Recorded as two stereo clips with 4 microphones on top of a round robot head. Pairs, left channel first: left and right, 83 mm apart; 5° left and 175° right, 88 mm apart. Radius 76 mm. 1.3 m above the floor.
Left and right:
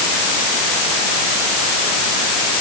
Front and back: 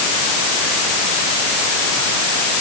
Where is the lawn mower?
No lawn mower in this recording.